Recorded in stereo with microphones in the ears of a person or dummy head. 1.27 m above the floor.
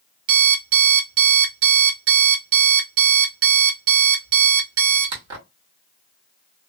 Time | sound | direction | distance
0.3 | an alarm clock | 70° right (ahead or behind) | 1.9 m